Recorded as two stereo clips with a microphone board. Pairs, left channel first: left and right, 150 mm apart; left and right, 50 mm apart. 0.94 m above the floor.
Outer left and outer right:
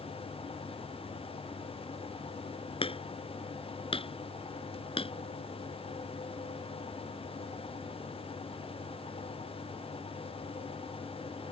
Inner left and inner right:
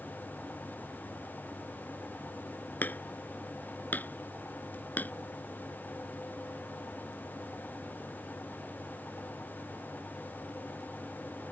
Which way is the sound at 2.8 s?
35° left (ahead or behind).